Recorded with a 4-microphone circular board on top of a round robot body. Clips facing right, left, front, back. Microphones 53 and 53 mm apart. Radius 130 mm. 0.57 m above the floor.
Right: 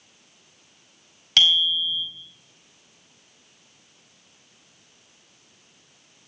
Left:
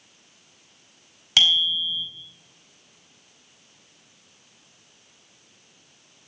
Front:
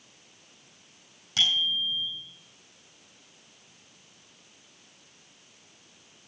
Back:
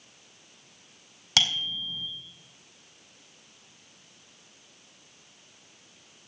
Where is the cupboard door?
I don't hear a cupboard door.